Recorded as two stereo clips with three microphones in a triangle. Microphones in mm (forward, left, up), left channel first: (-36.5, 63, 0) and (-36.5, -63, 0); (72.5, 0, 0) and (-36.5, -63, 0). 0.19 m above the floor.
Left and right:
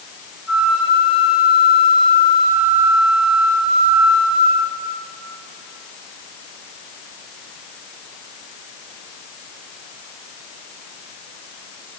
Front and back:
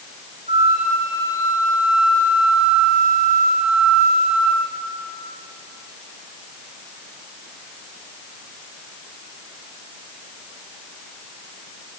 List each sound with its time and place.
0.5 s a flute: 175° right, 9 m